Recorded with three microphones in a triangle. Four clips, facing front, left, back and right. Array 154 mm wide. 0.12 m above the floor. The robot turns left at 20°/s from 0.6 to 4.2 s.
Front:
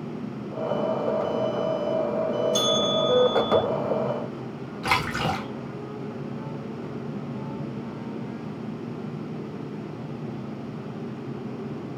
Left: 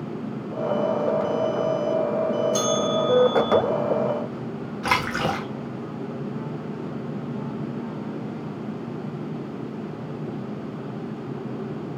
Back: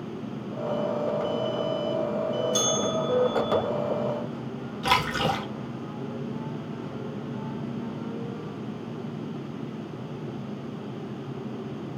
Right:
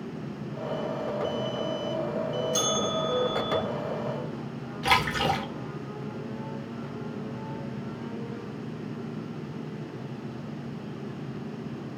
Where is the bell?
85° left, 1.9 m; by 3.6 s 60° left, 1.9 m.